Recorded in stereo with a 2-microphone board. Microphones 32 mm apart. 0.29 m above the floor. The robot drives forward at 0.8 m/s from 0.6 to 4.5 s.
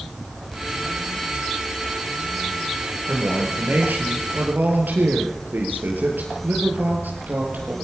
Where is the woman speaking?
70° right (ahead or behind), 7 m; by 7.7 s 75° right (ahead or behind), 6.5 m.